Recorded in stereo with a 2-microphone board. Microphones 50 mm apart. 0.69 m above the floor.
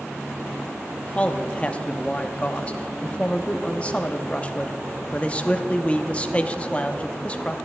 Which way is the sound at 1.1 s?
25° left (ahead or behind).